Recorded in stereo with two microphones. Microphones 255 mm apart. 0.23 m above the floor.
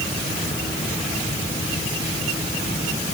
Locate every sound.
Only background noise.